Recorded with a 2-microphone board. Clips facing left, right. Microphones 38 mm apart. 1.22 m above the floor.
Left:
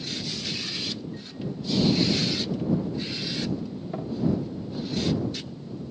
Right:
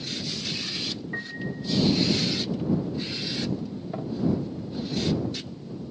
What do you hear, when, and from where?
1.1 s a piano: 80° right